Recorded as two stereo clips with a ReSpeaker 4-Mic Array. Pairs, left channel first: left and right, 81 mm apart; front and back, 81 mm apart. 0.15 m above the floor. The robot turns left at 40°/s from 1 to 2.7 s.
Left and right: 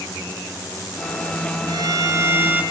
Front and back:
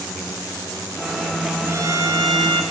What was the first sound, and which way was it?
A violin, 125° right.